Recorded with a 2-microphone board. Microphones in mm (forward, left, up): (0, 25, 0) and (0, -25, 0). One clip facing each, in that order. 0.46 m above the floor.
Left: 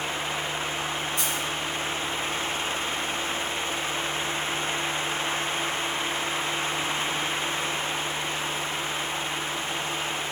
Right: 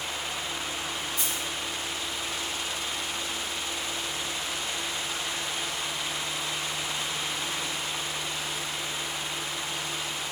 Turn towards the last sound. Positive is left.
turn(degrees=70)  # may be behind; listen again after turning